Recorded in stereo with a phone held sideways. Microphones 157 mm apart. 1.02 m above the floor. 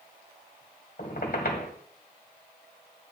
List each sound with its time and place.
1.0 s a squeak: 75° left (ahead or behind), 2 m